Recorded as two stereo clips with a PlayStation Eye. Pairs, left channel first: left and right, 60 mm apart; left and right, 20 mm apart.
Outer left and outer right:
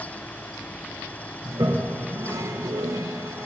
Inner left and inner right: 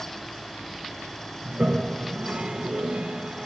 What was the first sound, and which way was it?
A toilet flushing, 65° right (ahead or behind).